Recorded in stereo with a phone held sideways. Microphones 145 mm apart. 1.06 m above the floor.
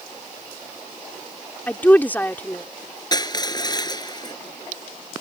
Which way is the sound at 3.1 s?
30° left (ahead or behind).